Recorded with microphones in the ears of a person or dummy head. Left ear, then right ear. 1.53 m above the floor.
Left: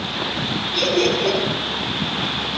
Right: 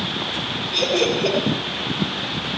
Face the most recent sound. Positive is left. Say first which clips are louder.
# left 1 dB
turn(degrees=-55)  # may be behind; listen again after turning